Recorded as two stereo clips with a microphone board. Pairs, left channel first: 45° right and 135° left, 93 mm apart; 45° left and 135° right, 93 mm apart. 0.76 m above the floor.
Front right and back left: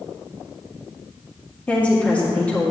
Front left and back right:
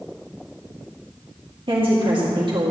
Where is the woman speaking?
120° right, 1.7 m.